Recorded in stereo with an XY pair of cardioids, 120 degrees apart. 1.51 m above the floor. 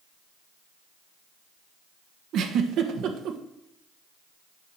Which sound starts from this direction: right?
A giggle, at 2.3 s.